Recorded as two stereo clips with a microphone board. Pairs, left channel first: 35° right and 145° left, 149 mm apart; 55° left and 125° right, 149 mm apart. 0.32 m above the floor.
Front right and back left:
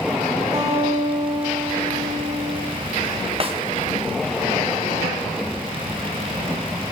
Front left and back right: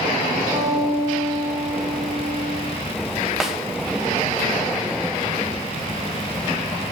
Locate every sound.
0.5 s a guitar: 155° right, 7 m
3.4 s a snare drum: 150° left, 1.4 m